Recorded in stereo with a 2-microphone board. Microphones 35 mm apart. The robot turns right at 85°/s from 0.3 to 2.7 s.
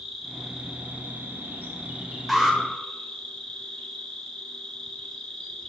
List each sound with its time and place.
0.0 s an insect: 170° left, 1.5 m; by 5.7 s 15° left, 1.5 m
2.3 s an alarm: centre (ahead or behind), 1.1 m; by 2.6 s 15° right (ahead or behind), 1.1 m